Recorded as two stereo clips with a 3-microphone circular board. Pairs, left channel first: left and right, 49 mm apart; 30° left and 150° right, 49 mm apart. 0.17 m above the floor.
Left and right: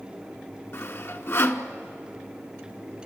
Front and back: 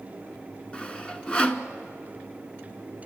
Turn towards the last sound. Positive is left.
turn(degrees=100)